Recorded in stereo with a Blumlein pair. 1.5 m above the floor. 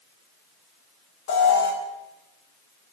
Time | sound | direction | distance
1.3 | an alarm | 55° left | 2.5 m